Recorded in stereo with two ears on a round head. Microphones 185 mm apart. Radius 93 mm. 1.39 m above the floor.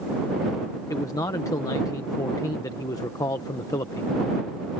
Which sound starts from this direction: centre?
A man speaking, at 0.9 s.